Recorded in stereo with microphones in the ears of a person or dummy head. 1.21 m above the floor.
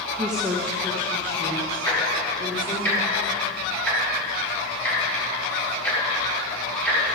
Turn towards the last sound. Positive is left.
turn(degrees=10)  # may be behind; listen again after turning